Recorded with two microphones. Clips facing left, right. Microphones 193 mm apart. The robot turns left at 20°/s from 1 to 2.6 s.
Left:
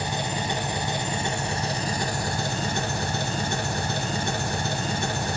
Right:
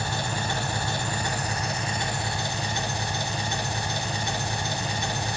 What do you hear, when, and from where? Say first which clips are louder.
0.0 s an engine running: left 2 dB; 160° left, 0.8 m; by 5.4 s 130° left, 0.8 m